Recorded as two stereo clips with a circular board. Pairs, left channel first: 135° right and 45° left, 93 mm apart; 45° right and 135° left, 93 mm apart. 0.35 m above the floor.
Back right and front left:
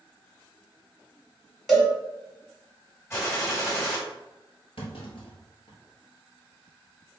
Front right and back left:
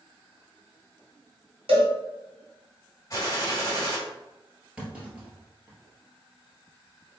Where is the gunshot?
85° right, 1.8 m.